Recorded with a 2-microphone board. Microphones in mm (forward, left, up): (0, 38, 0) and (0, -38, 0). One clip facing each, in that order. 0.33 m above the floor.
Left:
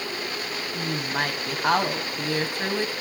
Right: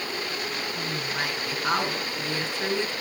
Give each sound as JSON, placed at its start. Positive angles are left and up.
{"t": 0.8, "sound": "a woman speaking", "side_deg": 55, "distance_m": 2.5}